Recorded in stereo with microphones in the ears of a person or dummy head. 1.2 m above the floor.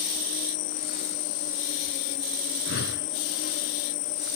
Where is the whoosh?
60° left (ahead or behind).